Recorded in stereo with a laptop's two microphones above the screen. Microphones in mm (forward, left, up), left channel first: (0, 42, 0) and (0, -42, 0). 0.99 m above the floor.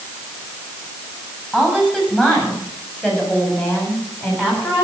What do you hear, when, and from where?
1.5 s a woman speaking: 10° left (ahead or behind), 7.5 m; by 4.8 s 25° left (ahead or behind), 8.5 m